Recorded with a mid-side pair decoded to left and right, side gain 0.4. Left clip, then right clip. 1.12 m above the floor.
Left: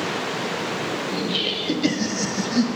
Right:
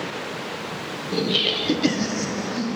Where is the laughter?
40° right, 1.2 m; by 2.7 s 75° left, 0.7 m.